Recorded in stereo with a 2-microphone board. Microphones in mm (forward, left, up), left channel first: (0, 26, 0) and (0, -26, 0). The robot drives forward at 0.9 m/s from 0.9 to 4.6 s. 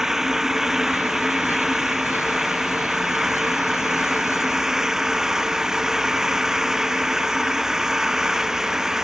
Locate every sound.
0.0 s an engine running: 10° right (ahead or behind)